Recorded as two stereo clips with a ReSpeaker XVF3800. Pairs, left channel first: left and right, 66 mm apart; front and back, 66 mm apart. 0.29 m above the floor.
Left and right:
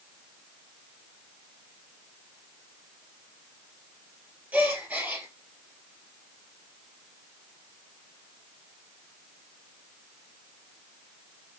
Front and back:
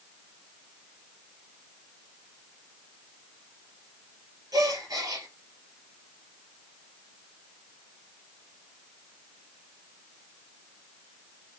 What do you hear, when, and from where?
4.5 s a gasp: 155° right, 3 m